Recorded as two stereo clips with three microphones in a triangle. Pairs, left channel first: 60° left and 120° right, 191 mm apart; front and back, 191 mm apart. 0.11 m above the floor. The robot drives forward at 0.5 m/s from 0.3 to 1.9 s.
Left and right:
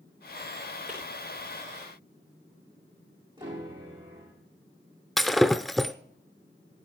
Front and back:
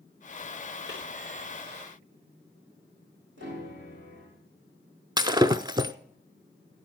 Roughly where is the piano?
Behind.